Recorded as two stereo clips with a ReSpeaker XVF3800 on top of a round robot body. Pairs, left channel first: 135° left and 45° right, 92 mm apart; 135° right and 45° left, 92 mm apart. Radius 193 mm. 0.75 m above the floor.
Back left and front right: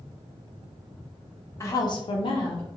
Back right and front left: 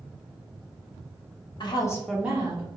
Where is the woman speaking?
170° right, 0.9 m; by 2.7 s 80° left, 0.9 m.